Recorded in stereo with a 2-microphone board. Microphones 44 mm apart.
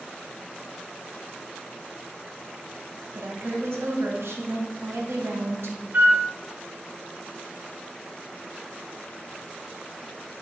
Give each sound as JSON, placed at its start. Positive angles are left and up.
{"t": 3.1, "sound": "a woman speaking", "side_deg": -75, "distance_m": 0.8}
{"t": 5.9, "sound": "a flute", "side_deg": -40, "distance_m": 0.8}